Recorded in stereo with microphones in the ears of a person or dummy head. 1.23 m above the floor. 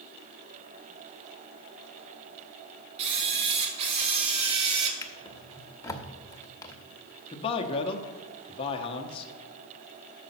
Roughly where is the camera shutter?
Right.